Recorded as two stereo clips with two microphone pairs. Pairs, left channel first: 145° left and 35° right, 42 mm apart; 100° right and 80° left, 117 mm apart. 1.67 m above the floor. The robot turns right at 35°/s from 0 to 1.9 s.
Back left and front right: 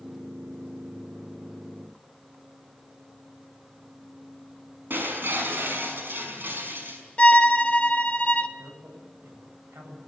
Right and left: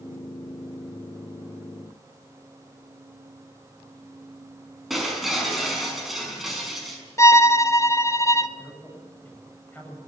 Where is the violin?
165° right, 0.8 m.